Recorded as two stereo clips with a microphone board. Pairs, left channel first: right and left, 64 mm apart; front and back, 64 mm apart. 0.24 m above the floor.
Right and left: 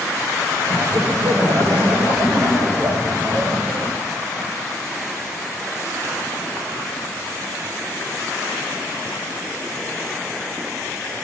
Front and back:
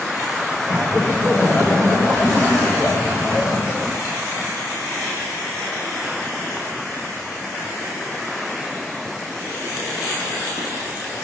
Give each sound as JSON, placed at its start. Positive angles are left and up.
{"t": 0.7, "sound": "laughter", "azimuth_deg": 50, "distance_m": 9.0}